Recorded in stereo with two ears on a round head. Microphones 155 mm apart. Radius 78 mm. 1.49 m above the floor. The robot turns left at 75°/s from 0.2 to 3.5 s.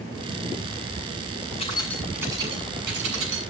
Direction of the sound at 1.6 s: 35° left (ahead or behind).